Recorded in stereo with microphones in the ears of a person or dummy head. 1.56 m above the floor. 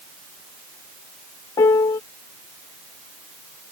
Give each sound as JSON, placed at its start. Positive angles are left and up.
{"t": 1.6, "sound": "a piano", "side_deg": 10}